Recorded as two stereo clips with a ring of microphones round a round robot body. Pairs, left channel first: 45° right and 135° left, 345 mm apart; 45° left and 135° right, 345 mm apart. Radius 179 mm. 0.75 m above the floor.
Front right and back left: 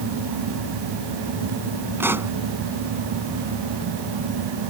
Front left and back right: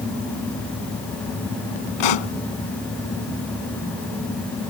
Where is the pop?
50° left.